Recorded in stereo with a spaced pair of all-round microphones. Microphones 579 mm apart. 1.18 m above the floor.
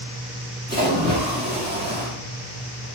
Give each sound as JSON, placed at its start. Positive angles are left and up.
{"t": 0.7, "sound": "a splash", "side_deg": -15, "distance_m": 2.0}